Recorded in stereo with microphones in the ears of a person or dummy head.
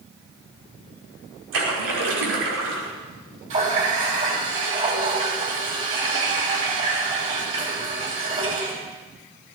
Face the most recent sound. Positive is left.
turn(degrees=-45)  # may be behind; listen again after turning